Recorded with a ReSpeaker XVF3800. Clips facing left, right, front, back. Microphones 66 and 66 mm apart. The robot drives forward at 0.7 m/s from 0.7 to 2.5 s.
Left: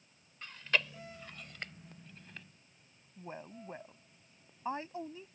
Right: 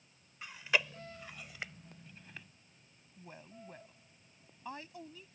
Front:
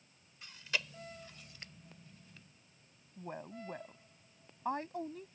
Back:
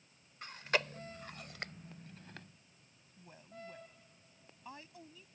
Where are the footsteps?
No footsteps in this recording.